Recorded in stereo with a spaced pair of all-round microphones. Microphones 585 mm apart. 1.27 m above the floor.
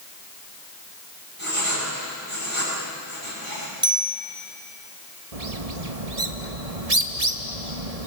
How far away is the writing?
About 9.5 m.